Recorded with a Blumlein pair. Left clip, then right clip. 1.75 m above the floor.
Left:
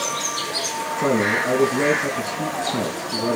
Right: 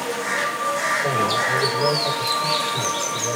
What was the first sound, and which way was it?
A man speaking, 55° left.